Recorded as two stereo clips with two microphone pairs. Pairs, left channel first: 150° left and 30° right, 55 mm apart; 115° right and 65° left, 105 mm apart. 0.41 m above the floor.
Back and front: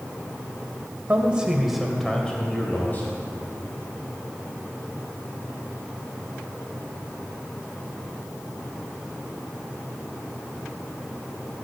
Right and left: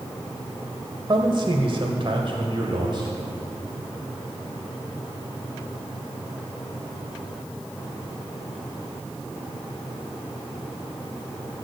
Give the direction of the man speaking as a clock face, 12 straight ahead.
11 o'clock.